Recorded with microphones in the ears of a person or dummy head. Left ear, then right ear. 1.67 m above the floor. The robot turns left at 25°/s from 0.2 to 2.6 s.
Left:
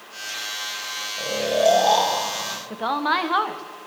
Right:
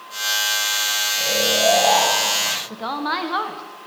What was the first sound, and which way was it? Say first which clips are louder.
Snoring: even; 30° left.